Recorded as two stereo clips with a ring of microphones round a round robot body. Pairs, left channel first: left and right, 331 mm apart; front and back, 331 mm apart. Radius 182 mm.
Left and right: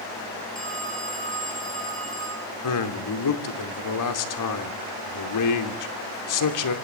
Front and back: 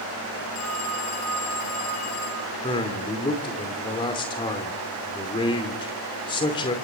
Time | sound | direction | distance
0.6 | a phone ringing | straight ahead | 10 m
2.6 | a man speaking | 75° left | 2.5 m